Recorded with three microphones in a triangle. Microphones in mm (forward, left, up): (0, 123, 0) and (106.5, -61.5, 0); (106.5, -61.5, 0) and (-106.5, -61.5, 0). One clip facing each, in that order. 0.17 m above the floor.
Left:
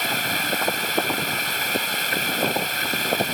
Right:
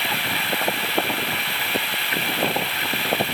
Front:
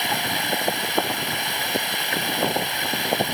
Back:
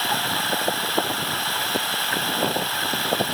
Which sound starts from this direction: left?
Running water, at 0.0 s.